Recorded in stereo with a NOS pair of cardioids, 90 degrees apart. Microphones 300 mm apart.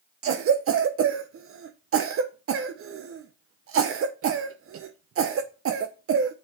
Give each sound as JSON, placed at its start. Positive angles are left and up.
{"t": 0.2, "sound": "a cough", "azimuth_deg": -45, "distance_m": 0.6}